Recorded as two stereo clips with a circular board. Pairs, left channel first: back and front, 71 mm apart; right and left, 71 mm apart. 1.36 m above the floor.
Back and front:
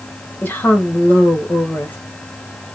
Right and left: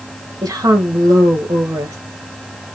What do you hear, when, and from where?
0.4 s a woman speaking: 120° left, 1.5 m